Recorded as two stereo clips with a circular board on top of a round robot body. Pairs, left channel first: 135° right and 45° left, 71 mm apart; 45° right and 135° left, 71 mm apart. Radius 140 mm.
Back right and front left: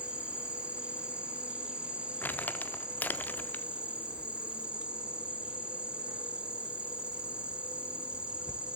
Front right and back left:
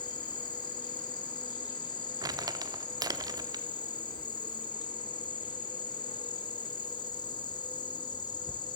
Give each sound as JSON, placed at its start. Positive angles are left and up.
{"t": 0.0, "sound": "an insect", "azimuth_deg": -30, "distance_m": 0.7}
{"t": 2.2, "sound": "crumpling", "azimuth_deg": 160, "distance_m": 0.5}